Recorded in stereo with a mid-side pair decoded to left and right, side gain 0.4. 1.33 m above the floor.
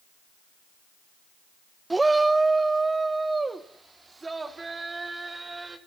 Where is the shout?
20° right, 0.6 m; by 5.8 s 30° right, 4 m.